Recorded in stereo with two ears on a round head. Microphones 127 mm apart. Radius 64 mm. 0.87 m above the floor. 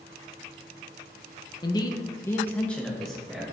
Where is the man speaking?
30° left (ahead or behind), 0.8 m; by 3.5 s centre (ahead or behind), 1.5 m.